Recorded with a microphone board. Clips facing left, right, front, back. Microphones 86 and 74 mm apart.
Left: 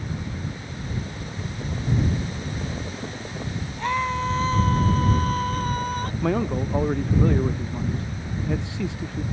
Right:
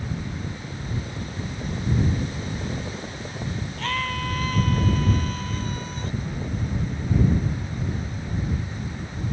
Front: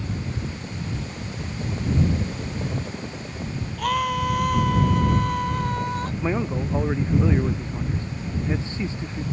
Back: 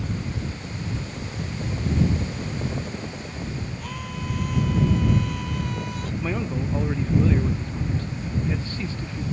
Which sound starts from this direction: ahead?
A scream, at 3.8 s.